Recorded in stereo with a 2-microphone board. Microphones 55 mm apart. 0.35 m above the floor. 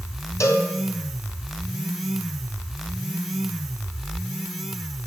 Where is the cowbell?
65° left (ahead or behind), 3 m.